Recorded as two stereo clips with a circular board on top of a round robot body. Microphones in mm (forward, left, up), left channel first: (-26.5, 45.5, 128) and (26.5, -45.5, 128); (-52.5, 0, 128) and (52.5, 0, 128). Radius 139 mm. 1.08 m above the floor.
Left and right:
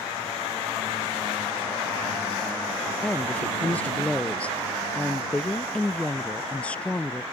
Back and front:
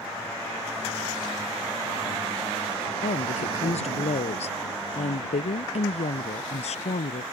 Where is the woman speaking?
160° right.